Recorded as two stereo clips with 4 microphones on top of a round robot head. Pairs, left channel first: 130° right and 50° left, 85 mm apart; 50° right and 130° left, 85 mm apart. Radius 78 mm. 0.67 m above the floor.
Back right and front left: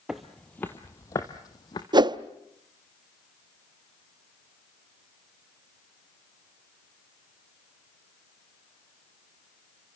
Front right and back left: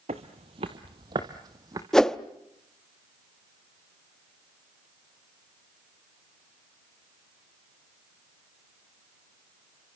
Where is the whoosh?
35° left, 0.8 m.